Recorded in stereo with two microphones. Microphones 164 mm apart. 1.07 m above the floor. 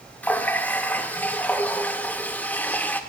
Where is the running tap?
10° left (ahead or behind), 0.6 m.